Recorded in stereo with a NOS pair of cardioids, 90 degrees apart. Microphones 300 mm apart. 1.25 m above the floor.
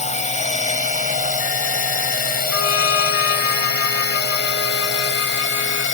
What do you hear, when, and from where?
0.0 s a drone: 20° left; by 6.0 s 40° left
2.5 s a trumpet: 55° left